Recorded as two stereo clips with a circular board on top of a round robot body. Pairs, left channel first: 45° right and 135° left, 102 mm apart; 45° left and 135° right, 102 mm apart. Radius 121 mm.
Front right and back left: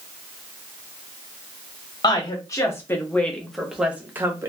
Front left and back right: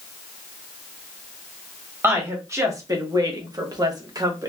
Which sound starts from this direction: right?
A woman speaking, at 2.0 s.